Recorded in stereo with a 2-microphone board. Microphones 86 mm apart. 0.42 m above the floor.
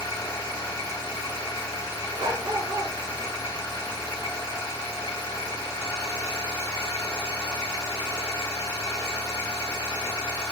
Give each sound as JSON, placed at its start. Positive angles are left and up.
{"t": 0.0, "sound": "an engine running", "side_deg": 45, "distance_m": 1.5}
{"t": 2.2, "sound": "a dog barking", "side_deg": -70, "distance_m": 1.1}